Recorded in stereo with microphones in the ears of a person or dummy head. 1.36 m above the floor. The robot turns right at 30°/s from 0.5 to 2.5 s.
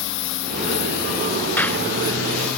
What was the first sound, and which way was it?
A lawn mower, 115° left.